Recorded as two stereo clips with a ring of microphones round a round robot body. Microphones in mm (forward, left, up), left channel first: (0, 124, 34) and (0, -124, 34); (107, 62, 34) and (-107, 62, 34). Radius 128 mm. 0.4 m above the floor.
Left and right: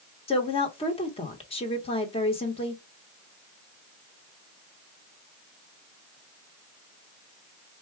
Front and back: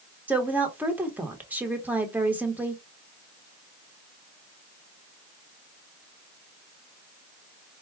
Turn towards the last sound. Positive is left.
turn(degrees=110)